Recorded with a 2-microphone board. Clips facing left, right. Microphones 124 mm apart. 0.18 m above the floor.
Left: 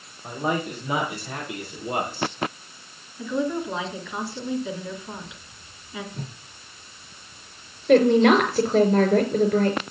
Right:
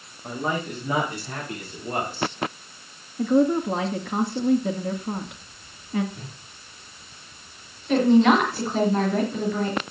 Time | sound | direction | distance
0.2 | a man speaking | 15° left (ahead or behind) | 8.5 m
3.2 | a woman speaking | 55° right (ahead or behind) | 1.8 m
6.1 | a whoosh | 40° left (ahead or behind) | 1.9 m
7.9 | a woman speaking | 60° left (ahead or behind) | 3 m